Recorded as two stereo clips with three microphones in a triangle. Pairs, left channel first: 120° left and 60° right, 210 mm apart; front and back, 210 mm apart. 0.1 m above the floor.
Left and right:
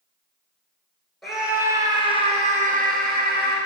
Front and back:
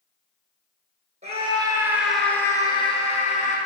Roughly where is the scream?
Behind right.